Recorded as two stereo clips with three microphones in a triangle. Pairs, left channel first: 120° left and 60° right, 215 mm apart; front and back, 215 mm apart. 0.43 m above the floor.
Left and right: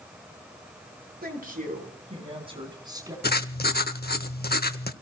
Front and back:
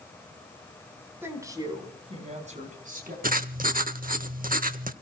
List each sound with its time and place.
1.2 s a woman speaking: 100° right, 3.5 m; by 3.1 s 135° right, 4.5 m
3.2 s writing: 145° left, 0.7 m